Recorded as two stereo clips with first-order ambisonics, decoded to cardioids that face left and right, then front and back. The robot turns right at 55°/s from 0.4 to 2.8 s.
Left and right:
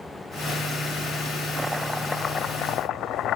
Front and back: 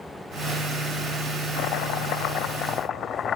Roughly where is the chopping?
Ahead.